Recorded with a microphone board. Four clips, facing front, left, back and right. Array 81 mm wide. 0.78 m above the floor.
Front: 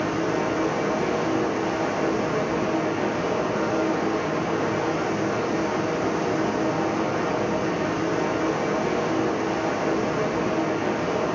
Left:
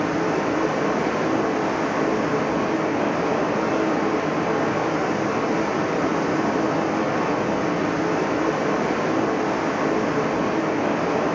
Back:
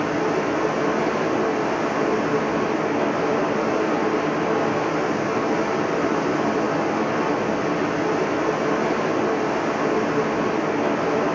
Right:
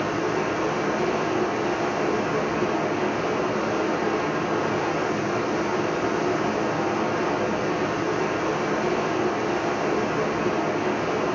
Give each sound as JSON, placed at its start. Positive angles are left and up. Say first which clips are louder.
{"t": 0.0, "sound": "running water", "louder": "left 3 dB, back 2 dB", "azimuth_deg": 130, "distance_m": 7.5}